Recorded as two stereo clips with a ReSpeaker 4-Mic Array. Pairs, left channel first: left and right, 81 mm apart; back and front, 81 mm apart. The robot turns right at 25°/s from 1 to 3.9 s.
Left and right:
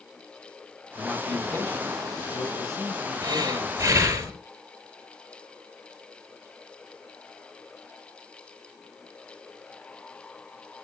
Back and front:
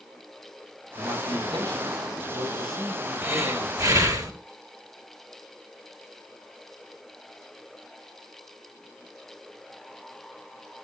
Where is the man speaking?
5° left, 6 m; by 4.2 s 80° left, 6 m.